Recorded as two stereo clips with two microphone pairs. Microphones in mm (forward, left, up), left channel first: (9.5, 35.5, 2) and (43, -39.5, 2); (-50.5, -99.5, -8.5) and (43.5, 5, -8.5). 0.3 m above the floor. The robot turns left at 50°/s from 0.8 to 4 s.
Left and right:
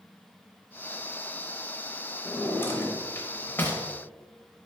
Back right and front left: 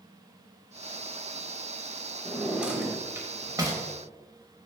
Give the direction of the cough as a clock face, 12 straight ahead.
I don't hear a cough.